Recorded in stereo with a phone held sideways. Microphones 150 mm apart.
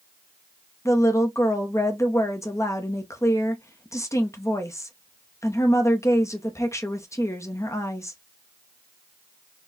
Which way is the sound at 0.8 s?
20° left (ahead or behind).